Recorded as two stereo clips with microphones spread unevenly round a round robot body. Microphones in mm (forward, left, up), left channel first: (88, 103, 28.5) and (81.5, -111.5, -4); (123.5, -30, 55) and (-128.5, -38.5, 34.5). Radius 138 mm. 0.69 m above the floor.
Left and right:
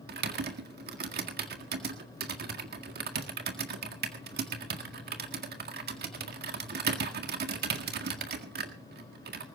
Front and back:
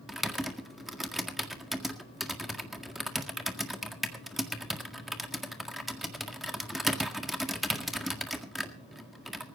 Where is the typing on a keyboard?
95° right, 1.7 m.